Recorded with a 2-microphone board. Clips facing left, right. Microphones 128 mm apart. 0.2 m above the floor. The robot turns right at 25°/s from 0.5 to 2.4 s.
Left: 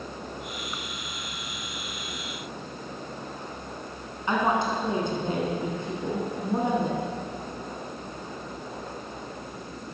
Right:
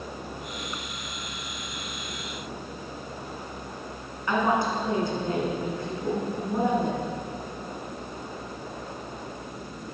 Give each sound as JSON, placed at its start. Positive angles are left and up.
{"t": 4.3, "sound": "a woman speaking", "side_deg": 20, "distance_m": 1.9}